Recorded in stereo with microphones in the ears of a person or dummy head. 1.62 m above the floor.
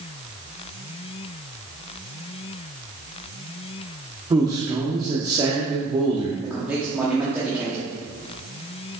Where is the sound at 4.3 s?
20° right (ahead or behind), 0.9 m.